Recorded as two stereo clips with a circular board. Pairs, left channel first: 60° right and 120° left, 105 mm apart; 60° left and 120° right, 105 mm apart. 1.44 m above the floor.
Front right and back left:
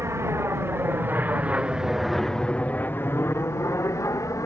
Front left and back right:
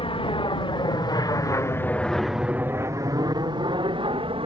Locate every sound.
0.0 s an aircraft: 60° left; by 4.5 s 115° right